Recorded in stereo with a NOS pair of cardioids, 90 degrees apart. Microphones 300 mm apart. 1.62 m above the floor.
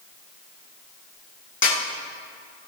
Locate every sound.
1.6 s a snare drum: 45° left, 7 m